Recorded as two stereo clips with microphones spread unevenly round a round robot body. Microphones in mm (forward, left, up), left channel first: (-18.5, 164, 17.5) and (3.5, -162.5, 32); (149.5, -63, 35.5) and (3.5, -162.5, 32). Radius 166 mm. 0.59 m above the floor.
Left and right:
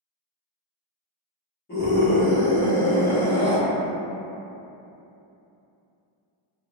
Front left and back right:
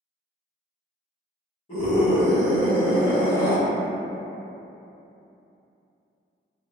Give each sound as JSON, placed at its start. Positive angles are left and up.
{"t": 1.7, "sound": "a scream", "azimuth_deg": 60, "distance_m": 1.2}